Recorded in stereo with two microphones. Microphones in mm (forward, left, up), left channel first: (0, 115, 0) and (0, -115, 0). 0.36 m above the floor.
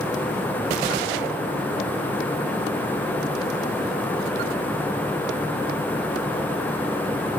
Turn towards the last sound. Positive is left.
No sound to turn to.